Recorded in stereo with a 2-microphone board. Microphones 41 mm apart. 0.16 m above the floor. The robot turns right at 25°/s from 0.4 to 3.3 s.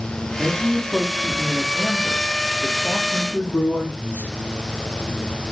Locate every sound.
0.4 s a man speaking: straight ahead, 5 m; by 4.3 s 75° left, 5 m